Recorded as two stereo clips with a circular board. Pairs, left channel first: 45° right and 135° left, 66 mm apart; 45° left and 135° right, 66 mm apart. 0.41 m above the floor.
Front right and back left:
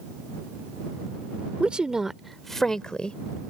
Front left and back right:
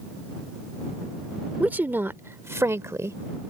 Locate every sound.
1.6 s a woman speaking: 170° right; by 3.2 s 115° right